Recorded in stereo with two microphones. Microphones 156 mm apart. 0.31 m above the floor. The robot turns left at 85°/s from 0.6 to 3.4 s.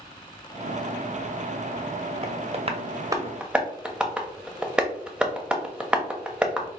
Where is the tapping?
40° right (ahead or behind), 0.7 m; by 6.7 s 5° right (ahead or behind), 0.7 m.